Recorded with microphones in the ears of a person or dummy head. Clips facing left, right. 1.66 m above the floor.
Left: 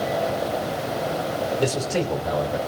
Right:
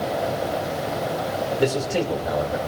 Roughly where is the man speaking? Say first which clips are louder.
Right 3 dB; centre.